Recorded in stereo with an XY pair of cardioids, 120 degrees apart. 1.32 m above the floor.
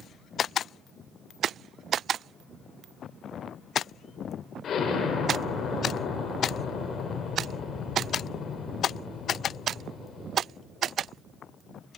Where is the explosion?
50° left, 2 m.